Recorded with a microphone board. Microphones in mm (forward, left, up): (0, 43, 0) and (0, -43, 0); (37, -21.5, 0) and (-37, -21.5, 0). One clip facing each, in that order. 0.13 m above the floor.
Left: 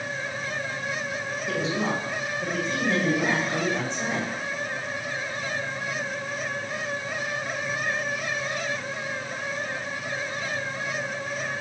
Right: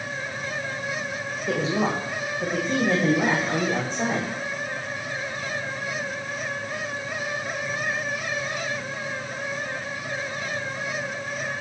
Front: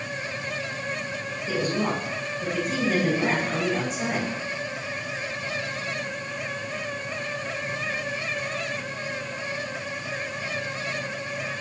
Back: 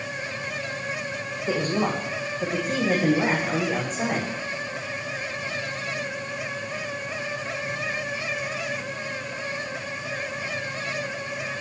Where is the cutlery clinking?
No cutlery clinking in this recording.